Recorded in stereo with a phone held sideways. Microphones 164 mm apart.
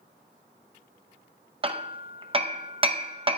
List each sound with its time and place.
1.6 s hammering: 30° right (ahead or behind), 0.7 m